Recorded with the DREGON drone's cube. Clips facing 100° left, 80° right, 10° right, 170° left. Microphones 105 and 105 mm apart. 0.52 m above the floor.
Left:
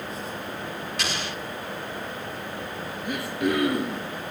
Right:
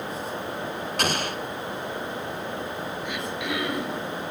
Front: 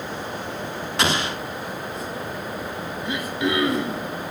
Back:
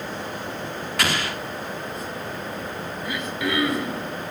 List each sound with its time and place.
1.0 s an explosion: 75° right, 0.5 m
3.0 s throat clearing: 55° left, 1.6 m